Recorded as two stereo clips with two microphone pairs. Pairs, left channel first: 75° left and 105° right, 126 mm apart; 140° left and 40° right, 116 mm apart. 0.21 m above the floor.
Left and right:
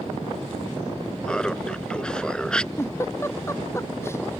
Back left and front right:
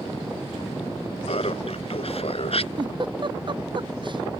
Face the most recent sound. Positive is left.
turn(degrees=5)